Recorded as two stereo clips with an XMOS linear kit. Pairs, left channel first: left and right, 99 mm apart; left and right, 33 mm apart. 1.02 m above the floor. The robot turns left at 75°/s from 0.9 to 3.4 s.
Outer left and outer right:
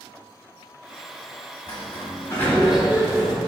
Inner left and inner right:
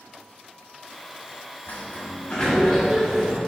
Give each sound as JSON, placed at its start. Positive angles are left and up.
{"t": 1.7, "sound": "a sliding door", "azimuth_deg": 75, "distance_m": 2.0}